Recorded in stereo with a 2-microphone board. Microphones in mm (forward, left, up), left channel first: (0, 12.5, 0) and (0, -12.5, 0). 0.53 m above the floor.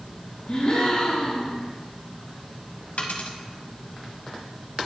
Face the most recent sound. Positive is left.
turn(degrees=75)  # may be behind; listen again after turning